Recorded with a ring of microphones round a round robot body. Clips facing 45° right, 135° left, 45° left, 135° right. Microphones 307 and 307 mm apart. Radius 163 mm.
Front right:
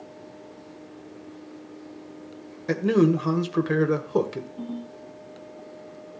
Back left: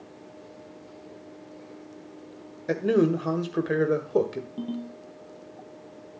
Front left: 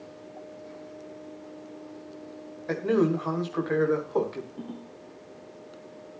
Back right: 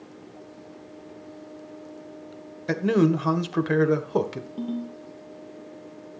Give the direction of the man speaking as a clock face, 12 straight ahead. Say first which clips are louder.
Front right 2 dB, back right 3 dB; 4 o'clock.